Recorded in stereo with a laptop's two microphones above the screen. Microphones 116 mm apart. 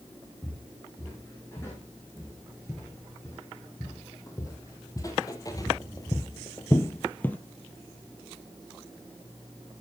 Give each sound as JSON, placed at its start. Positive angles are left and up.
{"t": 0.4, "sound": "footsteps", "side_deg": 20, "distance_m": 4.0}